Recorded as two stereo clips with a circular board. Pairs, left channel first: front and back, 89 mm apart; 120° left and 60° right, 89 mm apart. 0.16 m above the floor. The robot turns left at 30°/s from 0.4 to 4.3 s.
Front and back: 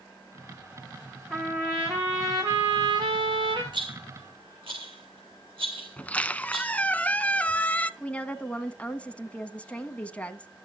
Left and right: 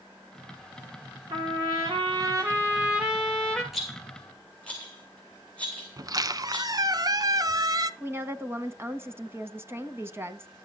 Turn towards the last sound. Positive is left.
turn(degrees=-60)